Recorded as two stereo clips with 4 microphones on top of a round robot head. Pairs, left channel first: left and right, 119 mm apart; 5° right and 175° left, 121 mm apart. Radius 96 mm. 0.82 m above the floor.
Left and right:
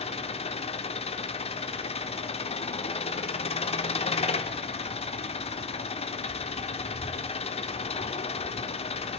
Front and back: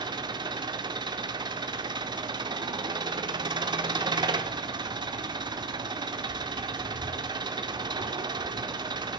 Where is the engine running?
125° left, 1.9 m.